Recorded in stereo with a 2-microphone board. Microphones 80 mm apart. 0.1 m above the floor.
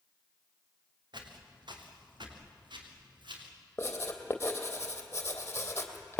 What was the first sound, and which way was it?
Footsteps, 70° right (ahead or behind).